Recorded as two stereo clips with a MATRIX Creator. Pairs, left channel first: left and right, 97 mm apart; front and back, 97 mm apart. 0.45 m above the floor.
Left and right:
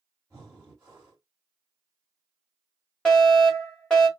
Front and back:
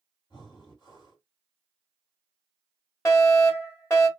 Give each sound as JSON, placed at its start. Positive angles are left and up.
{"t": 0.3, "sound": "breathing", "azimuth_deg": -30, "distance_m": 2.0}
{"t": 3.0, "sound": "a fire alarm", "azimuth_deg": 15, "distance_m": 1.7}